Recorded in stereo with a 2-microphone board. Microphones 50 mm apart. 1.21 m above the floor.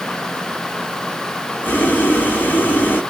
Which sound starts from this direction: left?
Boiling, at 1.6 s.